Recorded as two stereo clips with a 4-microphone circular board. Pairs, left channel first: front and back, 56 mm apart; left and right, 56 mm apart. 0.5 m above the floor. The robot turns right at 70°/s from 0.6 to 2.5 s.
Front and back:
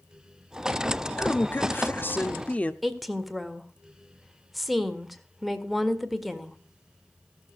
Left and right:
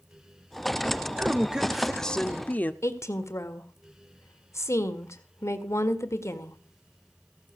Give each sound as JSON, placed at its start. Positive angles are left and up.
{"t": 1.2, "sound": "a woman speaking", "azimuth_deg": -45, "distance_m": 0.8}
{"t": 2.8, "sound": "a woman speaking", "azimuth_deg": 90, "distance_m": 1.6}